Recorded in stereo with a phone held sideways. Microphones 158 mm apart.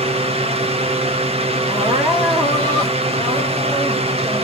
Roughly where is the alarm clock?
I don't hear an alarm clock.